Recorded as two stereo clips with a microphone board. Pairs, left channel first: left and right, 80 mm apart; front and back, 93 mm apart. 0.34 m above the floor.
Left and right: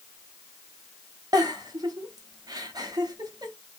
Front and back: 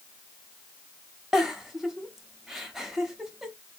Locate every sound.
1.3 s a giggle: 95° right, 0.7 m